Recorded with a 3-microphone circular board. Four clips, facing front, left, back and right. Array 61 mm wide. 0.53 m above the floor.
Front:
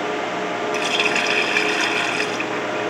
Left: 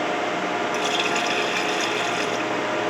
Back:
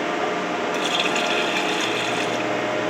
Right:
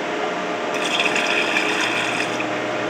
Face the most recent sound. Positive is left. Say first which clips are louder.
# right 2 dB, front 4 dB
turn(degrees=-35)